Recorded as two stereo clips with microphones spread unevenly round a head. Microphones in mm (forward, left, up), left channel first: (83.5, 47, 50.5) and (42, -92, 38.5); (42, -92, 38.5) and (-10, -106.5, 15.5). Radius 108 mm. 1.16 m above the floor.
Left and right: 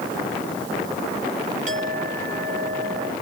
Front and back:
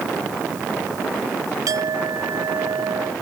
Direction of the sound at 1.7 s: 160° right.